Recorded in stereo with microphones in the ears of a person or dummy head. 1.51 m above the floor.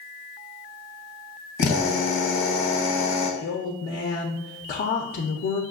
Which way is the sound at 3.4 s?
45° left (ahead or behind).